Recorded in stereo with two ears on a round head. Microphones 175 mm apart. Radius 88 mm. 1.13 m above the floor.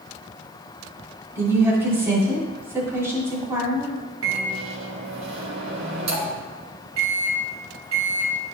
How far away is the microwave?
About 1.7 m.